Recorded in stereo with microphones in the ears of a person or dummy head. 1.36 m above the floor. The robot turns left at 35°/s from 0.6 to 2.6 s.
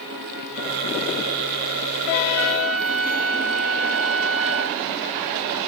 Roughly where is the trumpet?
Right.